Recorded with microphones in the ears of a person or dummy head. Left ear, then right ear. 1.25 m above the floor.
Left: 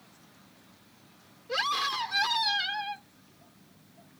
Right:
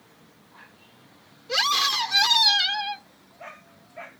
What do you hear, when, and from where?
1.5 s a scream: 30° right (ahead or behind)